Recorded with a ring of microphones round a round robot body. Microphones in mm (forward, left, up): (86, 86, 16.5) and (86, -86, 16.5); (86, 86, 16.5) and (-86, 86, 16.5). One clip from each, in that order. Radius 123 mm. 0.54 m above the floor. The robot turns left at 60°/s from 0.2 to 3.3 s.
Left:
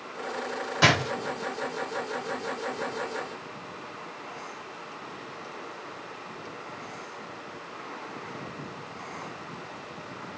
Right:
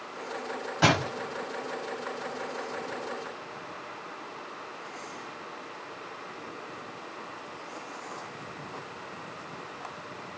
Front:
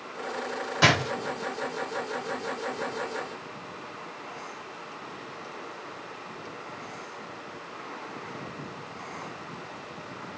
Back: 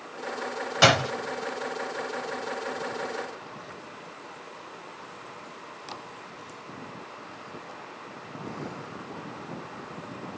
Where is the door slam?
155° left, 2.0 m; by 1.1 s 140° left, 2.0 m.